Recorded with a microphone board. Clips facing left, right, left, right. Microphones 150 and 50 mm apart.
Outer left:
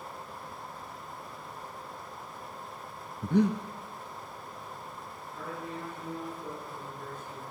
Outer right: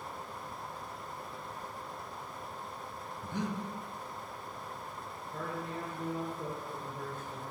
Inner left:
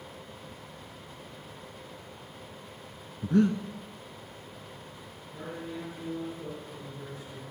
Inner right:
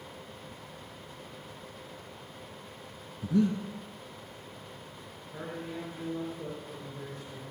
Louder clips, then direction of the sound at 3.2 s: Outer left 11 dB, inner left 3 dB; 65° left (ahead or behind).